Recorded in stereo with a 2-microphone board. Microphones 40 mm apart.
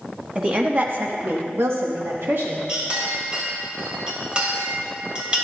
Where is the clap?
I don't hear a clap.